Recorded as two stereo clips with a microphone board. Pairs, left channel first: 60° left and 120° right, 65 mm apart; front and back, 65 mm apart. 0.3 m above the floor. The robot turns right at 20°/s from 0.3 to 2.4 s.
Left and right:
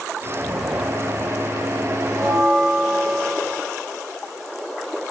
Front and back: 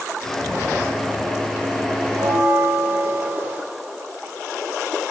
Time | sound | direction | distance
2.1 | a bell | 140° left | 7.5 m